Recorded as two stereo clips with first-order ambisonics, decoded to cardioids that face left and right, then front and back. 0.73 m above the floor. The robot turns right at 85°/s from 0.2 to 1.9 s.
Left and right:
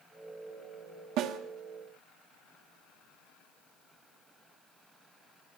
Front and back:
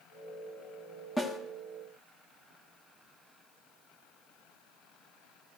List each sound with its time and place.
1.2 s a snare drum: 80° right, 1.1 m; by 1.4 s 60° right, 1.1 m